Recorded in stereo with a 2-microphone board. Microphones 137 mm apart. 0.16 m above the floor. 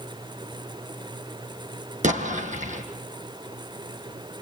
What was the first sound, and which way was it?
An explosion, 65° right (ahead or behind).